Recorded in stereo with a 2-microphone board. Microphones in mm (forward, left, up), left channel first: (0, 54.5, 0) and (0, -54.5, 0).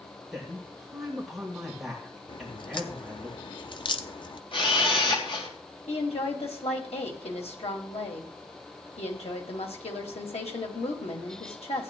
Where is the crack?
45° left (ahead or behind), 0.8 m.